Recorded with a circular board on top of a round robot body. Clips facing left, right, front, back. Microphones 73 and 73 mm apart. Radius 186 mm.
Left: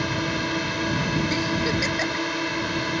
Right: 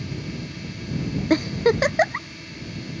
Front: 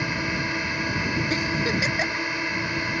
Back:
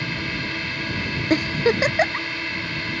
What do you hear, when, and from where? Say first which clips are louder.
0.0 s a drone: left 8 dB, front 1 dB; 75° left
1.3 s a giggle: right 5 dB, back 5 dB; 130° right